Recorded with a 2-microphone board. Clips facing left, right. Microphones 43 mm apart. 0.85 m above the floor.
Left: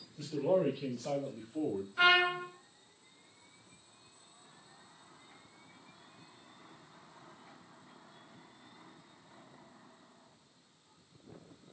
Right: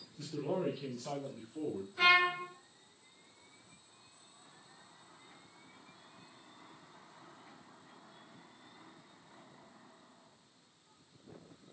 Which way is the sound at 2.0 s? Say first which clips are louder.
Left 1 dB; 40° left (ahead or behind).